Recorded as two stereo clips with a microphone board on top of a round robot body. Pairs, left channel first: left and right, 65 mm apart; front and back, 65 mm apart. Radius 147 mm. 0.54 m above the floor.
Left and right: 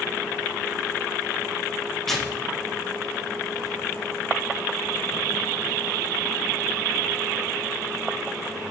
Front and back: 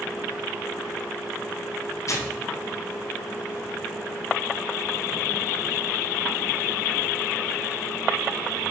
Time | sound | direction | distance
2.1 | tearing paper | 5° left | 1.6 m